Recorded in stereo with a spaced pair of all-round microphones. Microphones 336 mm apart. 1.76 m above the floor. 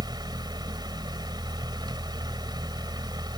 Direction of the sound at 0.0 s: 10° right (ahead or behind).